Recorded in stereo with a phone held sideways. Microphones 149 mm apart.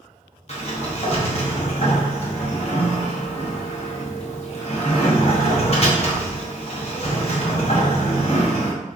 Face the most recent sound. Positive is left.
turn(degrees=45)  # may be behind; listen again after turning